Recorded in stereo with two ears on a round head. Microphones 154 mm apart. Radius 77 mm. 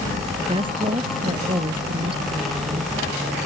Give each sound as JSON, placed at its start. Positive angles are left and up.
{"t": 0.4, "sound": "a woman speaking", "side_deg": -30}